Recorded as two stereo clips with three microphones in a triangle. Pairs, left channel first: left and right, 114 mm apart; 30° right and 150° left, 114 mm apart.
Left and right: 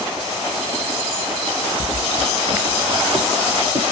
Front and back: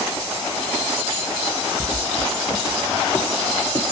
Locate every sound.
1.8 s footsteps: 120° right, 1.7 m; by 3.8 s 85° right, 1.8 m